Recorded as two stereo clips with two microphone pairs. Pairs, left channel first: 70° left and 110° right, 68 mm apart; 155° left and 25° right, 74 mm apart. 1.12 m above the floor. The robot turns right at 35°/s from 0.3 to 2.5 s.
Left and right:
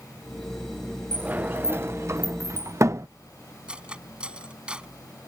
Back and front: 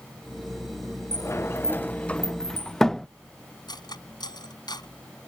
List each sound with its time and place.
1.1 s a sliding door: 170° right; by 3.1 s 125° right
3.7 s cutlery clinking: 175° left